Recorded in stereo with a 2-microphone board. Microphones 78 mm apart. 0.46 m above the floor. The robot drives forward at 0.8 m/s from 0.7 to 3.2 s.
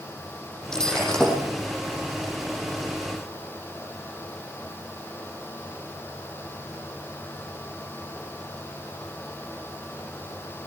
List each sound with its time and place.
0.7 s breaking glass: 10° left (ahead or behind), 7.5 m